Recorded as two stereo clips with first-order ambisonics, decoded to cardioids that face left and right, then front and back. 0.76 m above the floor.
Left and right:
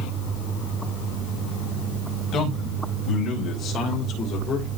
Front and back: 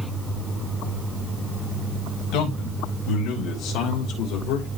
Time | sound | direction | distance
2.3 | a man speaking | 35° left | 4 m